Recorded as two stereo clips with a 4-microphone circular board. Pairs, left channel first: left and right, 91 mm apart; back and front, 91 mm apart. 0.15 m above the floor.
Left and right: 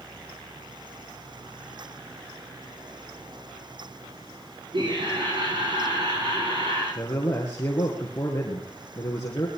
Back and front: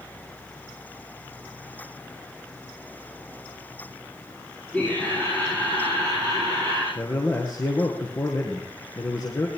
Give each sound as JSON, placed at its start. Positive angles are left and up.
{"t": 4.7, "sound": "laughter", "azimuth_deg": -105, "distance_m": 7.5}
{"t": 7.0, "sound": "a man speaking", "azimuth_deg": 140, "distance_m": 2.5}